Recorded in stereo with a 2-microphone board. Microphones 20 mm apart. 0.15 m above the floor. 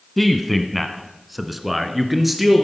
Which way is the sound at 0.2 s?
5° left (ahead or behind).